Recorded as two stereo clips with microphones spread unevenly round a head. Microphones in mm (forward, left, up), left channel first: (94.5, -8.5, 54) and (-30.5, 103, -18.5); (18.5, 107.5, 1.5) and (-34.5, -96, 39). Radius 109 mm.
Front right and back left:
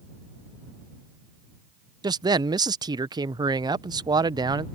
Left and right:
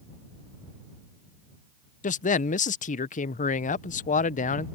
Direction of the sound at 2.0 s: 105° left.